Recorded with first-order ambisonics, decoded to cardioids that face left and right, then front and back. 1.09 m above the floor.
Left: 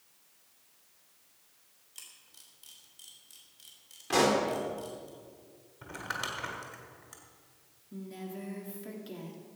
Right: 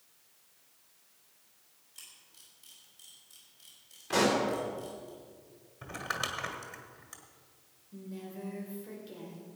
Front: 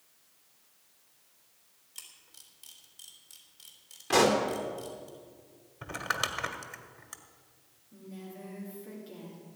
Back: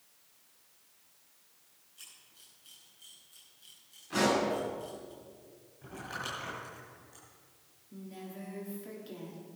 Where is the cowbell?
No cowbell in this recording.